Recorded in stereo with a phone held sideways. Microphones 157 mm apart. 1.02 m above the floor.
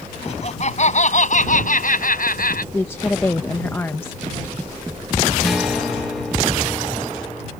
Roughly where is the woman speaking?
Centre.